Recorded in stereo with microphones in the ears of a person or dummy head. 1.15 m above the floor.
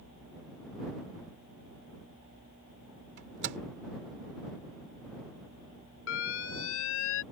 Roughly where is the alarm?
Left.